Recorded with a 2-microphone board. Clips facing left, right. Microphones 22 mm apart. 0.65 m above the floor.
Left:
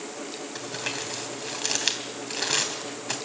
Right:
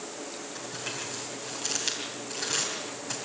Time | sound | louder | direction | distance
0.6 | crumpling | left 5 dB | 35° left (ahead or behind) | 3 m